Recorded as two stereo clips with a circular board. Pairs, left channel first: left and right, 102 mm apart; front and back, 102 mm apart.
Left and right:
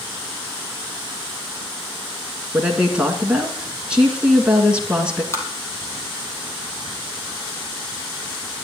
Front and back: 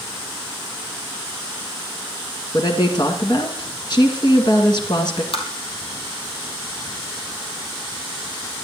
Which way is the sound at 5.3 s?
25° left.